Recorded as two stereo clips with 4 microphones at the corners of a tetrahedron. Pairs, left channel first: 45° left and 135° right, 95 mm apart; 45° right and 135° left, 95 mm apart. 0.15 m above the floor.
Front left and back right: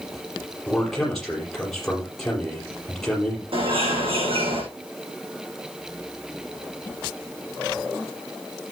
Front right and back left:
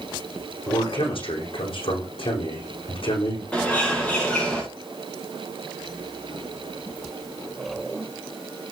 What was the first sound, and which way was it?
A man speaking, 40° right.